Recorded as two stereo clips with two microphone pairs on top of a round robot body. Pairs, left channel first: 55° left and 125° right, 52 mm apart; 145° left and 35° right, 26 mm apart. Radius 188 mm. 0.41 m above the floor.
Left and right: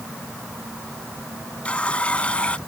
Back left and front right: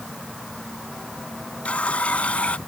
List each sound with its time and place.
1.6 s a running tap: 125° left